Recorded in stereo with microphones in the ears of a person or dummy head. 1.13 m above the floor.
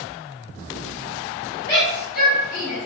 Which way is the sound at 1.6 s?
55° left (ahead or behind).